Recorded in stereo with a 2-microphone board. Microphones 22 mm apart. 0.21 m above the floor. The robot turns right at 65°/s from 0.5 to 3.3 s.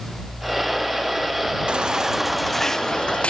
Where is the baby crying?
45° right; by 3.3 s 60° left.